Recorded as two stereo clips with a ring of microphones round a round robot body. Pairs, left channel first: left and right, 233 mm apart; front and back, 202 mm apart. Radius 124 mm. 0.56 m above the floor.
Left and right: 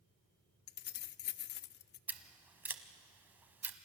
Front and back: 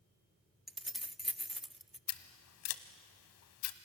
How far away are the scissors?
About 1.0 m.